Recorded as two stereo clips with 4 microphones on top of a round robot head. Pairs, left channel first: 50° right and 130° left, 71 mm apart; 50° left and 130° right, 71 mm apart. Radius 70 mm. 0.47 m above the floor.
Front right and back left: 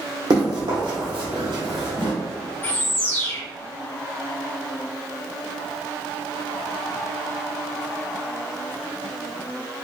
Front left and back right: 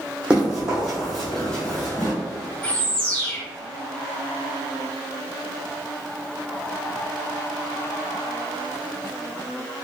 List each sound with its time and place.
0.3 s running footsteps: 155° left, 1.7 m; by 2.1 s 110° left, 1.0 m
2.6 s a bird: 10° right, 1.3 m